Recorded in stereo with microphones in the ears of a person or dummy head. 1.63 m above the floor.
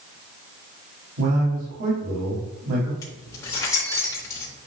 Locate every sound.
1.2 s a man speaking: 80° right, 4 m
3.0 s keys jangling: 20° left (ahead or behind), 3.5 m